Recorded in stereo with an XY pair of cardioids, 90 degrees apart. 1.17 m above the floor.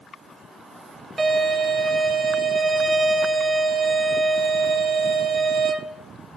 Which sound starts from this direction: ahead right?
A violin, at 1.2 s.